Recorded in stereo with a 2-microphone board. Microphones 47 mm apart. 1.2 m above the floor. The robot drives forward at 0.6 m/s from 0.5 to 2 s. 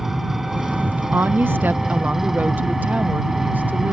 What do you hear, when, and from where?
0.0 s an engine running: 5° right (ahead or behind)
1.1 s a woman speaking: 50° right (ahead or behind); by 3.9 s 35° right (ahead or behind)